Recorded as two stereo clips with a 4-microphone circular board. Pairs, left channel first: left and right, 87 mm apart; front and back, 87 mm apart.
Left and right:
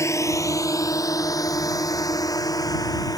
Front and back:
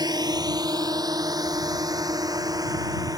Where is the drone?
145° left; by 3.2 s 135° left.